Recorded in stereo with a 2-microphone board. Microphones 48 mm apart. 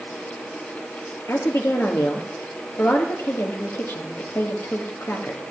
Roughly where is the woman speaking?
Left.